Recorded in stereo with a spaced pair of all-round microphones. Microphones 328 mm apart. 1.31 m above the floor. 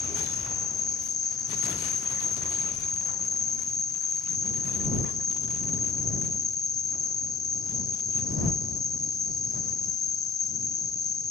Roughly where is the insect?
Left.